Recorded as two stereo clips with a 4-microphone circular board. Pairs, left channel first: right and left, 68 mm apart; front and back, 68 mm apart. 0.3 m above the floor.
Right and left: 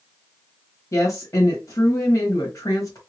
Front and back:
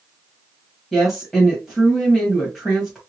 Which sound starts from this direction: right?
A woman speaking, at 0.9 s.